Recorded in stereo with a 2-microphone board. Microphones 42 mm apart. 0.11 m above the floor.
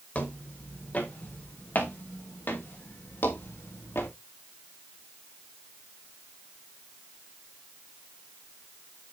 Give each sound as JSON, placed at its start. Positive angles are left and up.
{"t": 0.1, "sound": "footsteps", "side_deg": 35, "distance_m": 5.5}